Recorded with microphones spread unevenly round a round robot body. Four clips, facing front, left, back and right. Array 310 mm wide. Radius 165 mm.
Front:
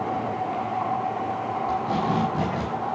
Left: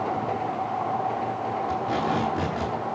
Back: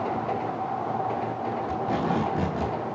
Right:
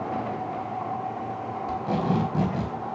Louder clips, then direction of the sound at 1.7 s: Right 2 dB, front 2 dB; 85° right.